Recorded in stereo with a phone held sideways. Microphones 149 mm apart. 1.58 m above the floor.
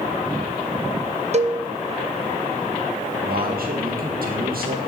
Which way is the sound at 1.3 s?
50° right (ahead or behind).